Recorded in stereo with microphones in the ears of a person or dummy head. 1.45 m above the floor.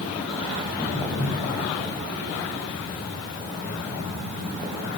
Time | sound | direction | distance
0.6 | footsteps | 10° left (ahead or behind) | 8.5 m